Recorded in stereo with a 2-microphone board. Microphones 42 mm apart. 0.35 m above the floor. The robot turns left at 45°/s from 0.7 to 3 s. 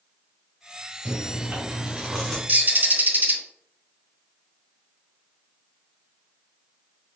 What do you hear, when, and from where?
1.1 s chewing: 110° right, 2.0 m; by 2.4 s 170° right, 2.0 m
2.5 s a bird: 45° right (ahead or behind), 0.5 m